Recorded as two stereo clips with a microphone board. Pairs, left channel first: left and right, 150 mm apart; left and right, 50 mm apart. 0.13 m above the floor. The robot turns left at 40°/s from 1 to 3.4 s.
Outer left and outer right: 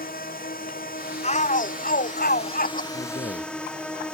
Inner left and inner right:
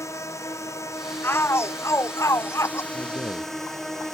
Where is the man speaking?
55° left (ahead or behind); by 4.2 s 50° left (ahead or behind).